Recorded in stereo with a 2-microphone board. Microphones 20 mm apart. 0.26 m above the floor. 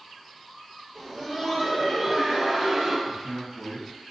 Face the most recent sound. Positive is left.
turn(degrees=20)  # may be behind; listen again after turning